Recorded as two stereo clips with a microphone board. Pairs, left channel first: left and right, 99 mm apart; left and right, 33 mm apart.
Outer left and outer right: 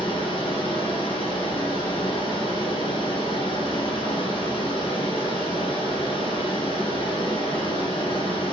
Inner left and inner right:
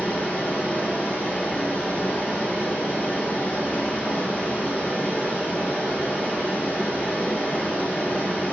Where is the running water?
55° left (ahead or behind), 3 m.